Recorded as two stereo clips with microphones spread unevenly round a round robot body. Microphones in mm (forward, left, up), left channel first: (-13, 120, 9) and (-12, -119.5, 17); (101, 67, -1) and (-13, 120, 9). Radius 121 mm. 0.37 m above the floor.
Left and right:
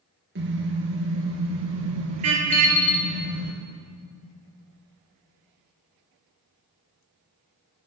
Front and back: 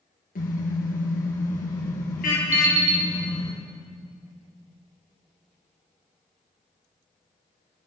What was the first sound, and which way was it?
A car horn, 45° right.